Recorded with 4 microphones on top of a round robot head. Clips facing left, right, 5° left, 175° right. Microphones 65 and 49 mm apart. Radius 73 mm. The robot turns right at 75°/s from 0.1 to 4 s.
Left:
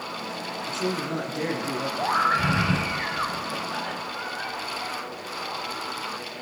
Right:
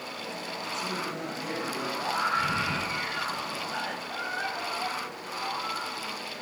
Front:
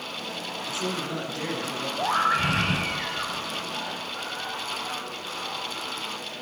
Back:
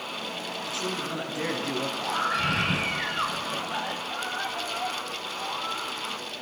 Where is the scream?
45° left, 3 m; by 5.9 s 165° right, 3 m.